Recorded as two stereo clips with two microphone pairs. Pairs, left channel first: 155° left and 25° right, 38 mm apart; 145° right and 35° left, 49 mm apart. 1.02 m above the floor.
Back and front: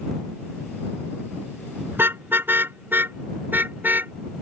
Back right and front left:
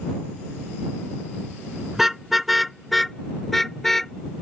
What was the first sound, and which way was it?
A car horn, 50° right.